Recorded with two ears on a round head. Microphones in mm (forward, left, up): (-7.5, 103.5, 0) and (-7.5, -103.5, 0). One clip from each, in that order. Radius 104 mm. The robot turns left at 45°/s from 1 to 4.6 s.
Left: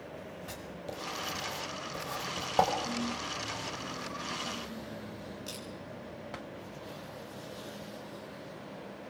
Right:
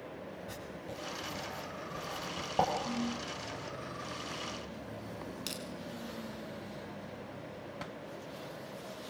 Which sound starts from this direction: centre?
A ringtone, at 2.9 s.